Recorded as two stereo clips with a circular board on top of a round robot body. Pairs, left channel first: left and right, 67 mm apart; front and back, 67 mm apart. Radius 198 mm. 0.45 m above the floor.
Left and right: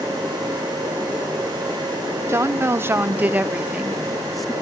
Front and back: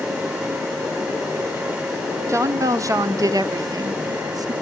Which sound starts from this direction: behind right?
A woman speaking, at 2.3 s.